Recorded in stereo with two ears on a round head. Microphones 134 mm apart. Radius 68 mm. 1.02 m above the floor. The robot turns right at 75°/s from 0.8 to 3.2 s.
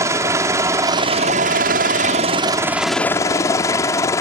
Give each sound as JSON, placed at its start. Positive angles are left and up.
{"t": 0.0, "sound": "a helicopter", "azimuth_deg": -155}